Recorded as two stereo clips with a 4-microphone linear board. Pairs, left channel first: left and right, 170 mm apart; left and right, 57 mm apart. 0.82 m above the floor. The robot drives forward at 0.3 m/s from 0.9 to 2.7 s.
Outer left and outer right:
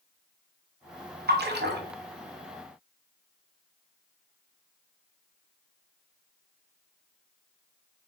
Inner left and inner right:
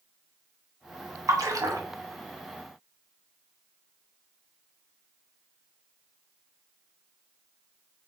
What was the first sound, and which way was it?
A splash, 75° right (ahead or behind).